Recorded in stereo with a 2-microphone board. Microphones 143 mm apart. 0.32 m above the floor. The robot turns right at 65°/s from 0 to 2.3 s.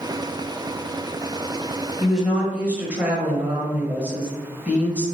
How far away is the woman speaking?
About 1.7 m.